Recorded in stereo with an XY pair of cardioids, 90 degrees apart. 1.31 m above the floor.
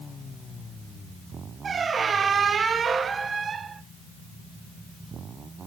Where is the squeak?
45° right, 0.5 m.